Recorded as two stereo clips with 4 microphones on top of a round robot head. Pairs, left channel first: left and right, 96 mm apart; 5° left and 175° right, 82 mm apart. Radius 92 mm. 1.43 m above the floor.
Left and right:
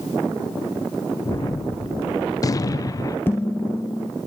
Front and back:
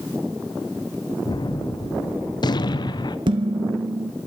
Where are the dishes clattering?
165° left, 1.3 m.